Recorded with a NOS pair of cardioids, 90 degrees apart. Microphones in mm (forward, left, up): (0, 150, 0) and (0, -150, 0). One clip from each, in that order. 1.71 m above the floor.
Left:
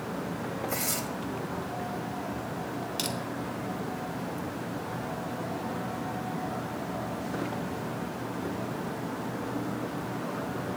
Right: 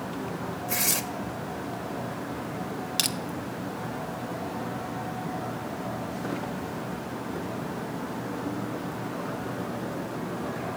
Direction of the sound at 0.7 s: 30° right.